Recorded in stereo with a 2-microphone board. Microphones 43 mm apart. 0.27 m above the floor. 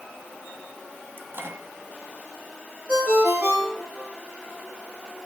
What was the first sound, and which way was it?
A microwave, 55° right (ahead or behind).